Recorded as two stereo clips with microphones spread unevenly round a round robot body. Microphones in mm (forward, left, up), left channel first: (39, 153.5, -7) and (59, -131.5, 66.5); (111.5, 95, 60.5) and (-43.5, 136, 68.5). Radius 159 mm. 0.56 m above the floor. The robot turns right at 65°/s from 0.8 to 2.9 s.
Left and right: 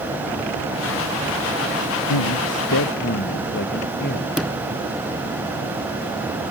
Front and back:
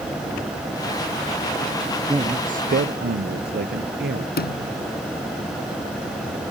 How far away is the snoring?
I don't hear snoring.